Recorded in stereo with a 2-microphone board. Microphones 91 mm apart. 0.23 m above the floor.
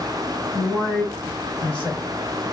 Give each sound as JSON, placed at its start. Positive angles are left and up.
{"t": 0.5, "sound": "a man speaking", "side_deg": 5, "distance_m": 1.3}